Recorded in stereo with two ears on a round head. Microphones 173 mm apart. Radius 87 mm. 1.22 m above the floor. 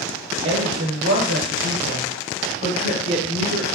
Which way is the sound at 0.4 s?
75° right (ahead or behind).